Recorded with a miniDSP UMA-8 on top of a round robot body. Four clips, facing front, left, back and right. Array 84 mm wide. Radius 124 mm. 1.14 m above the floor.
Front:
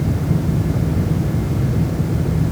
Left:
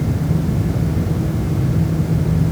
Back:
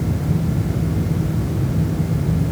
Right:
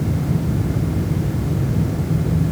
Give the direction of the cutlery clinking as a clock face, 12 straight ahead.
I don't hear cutlery clinking.